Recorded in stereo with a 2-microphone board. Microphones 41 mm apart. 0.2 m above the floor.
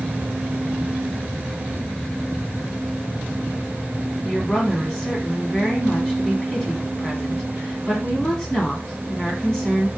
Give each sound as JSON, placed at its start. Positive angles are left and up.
{"t": 4.2, "sound": "a woman speaking", "side_deg": 15, "distance_m": 1.7}